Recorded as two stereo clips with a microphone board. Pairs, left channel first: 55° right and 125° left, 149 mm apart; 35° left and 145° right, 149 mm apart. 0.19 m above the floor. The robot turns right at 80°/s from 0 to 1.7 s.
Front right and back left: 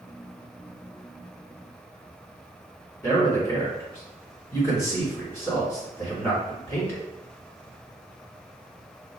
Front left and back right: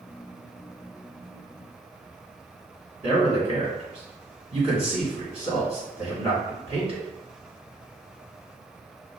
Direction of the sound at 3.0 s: 120° right.